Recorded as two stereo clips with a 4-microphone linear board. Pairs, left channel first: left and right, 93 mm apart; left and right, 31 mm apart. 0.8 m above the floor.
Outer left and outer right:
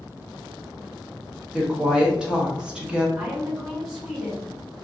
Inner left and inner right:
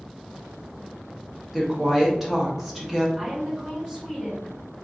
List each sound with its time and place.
1.5 s a woman speaking: 10° right (ahead or behind), 0.9 m
3.2 s a woman speaking: 5° right (ahead or behind), 1.6 m